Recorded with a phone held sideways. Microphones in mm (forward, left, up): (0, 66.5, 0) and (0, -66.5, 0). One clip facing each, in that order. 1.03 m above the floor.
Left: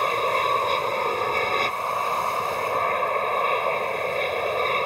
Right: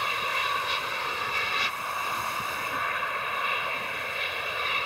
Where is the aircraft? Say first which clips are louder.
Left 9 dB; 50° left (ahead or behind).